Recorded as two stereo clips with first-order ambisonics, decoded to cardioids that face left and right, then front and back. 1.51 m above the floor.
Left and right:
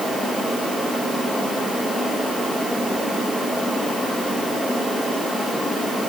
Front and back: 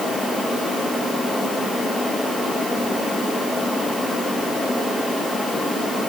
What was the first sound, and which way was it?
Only background noise.